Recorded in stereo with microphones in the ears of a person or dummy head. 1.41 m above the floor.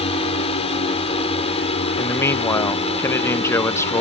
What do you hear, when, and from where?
0.0 s a drone: 30° left (ahead or behind)
2.0 s a man speaking: 15° left (ahead or behind)